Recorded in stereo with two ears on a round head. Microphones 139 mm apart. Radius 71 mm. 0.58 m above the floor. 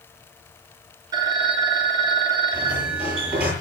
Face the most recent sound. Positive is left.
turn(degrees=-10)  # may be behind; listen again after turning